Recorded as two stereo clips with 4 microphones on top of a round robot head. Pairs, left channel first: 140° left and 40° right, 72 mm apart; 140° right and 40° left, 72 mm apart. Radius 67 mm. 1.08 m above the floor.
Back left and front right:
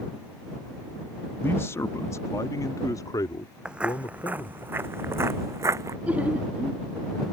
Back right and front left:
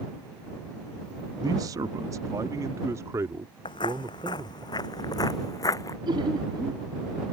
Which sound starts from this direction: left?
A man speaking, at 1.4 s.